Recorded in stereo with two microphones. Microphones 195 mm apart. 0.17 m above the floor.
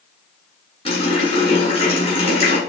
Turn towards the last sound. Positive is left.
turn(degrees=30)  # may be behind; listen again after turning